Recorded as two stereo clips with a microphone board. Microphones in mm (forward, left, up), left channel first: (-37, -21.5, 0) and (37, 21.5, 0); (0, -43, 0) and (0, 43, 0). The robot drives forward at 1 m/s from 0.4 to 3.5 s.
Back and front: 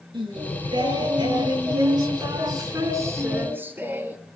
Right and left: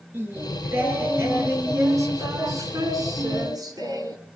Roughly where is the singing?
Ahead left.